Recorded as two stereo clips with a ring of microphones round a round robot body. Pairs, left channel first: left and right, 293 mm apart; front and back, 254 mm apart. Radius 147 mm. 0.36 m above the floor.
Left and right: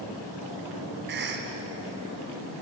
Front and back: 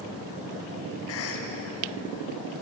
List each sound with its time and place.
1.1 s a cough: 35° right, 2.5 m